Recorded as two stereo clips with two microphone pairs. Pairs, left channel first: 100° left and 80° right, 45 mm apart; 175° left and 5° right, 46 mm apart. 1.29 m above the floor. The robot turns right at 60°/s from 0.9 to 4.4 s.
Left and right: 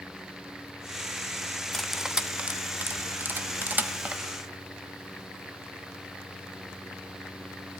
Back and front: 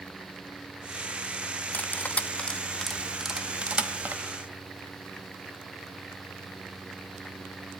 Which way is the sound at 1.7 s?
170° right.